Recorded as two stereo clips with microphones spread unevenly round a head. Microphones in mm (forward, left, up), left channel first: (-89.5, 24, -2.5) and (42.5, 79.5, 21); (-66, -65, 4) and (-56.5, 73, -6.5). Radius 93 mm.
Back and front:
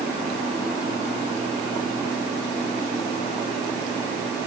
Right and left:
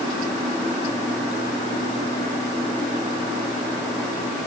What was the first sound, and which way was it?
Only background noise.